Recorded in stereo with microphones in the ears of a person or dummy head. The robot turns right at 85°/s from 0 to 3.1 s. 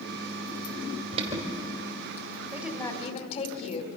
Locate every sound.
1.1 s an alarm: 50° right (ahead or behind), 3.5 m; by 1.5 s 15° right (ahead or behind), 3.5 m
2.5 s a woman speaking: 25° right, 2.5 m; by 3.9 s 25° left, 2.5 m